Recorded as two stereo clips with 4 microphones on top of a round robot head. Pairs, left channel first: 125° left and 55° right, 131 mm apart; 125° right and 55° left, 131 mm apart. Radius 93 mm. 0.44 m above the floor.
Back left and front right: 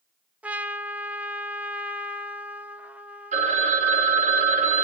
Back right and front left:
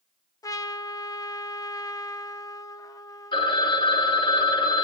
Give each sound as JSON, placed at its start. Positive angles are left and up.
{"t": 0.4, "sound": "a trumpet", "azimuth_deg": -120, "distance_m": 0.7}
{"t": 3.3, "sound": "a phone ringing", "azimuth_deg": -75, "distance_m": 1.4}